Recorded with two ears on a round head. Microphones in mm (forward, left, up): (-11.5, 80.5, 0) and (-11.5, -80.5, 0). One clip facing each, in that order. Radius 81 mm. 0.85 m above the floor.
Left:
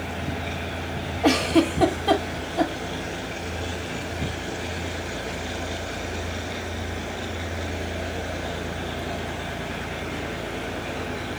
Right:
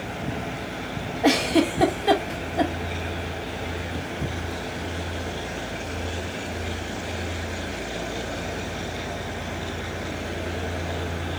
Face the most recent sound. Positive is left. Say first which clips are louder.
# left 1 dB
turn(degrees=-10)  # may be behind; listen again after turning